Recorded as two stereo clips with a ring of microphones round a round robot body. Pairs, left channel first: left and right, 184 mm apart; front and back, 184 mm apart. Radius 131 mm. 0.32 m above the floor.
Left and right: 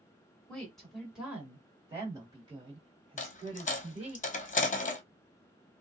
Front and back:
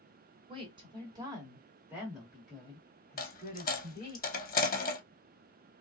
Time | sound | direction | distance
0.5 | a woman speaking | 170° left | 1.6 m
3.2 | a dropped coin | 40° left | 0.8 m